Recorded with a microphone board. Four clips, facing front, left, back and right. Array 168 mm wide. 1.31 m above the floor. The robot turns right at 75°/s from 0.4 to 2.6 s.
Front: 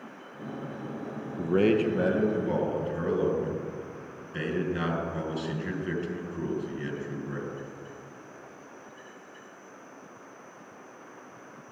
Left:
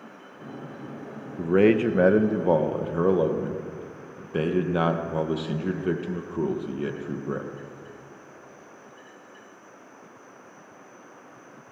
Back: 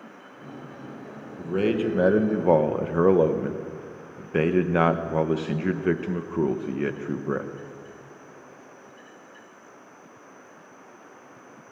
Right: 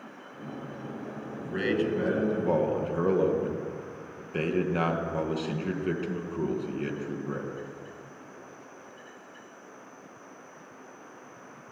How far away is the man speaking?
About 1.1 m.